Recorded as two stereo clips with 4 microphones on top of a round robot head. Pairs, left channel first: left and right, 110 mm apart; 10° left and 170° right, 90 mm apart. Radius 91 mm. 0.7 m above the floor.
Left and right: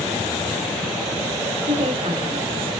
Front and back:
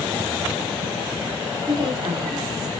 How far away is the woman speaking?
About 2.0 m.